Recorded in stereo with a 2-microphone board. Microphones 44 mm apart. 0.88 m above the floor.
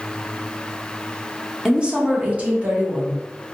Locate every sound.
1.6 s a woman speaking: 15° right (ahead or behind), 0.6 m; by 3.5 s 40° right (ahead or behind), 1.5 m